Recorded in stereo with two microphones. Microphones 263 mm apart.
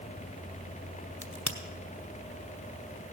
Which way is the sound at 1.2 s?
70° left (ahead or behind).